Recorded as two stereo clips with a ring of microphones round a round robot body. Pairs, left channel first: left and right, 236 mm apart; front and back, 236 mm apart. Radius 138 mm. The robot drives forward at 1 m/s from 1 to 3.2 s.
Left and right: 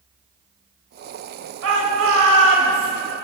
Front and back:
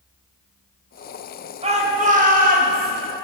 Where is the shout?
120° right, 3.5 m; by 2.9 s 135° right, 4.5 m.